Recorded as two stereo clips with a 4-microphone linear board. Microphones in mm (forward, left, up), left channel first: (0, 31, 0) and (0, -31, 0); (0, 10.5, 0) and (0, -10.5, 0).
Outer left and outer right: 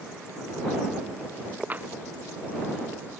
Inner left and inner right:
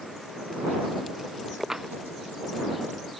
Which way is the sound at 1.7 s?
30° right (ahead or behind).